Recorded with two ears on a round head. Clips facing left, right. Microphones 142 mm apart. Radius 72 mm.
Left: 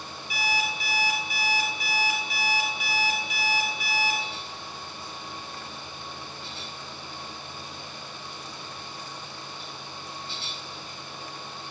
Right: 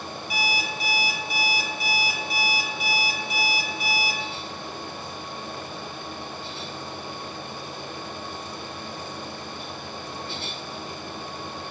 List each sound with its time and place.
0.3 s an alarm clock: 35° right (ahead or behind), 2.0 m